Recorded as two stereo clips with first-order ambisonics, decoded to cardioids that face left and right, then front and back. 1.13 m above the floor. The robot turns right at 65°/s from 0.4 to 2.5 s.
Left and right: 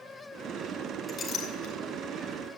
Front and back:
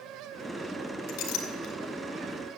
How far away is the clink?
About 3 m.